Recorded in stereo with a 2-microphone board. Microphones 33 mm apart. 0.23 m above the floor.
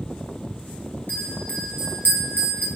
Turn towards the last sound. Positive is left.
turn(degrees=75)  # may be behind; listen again after turning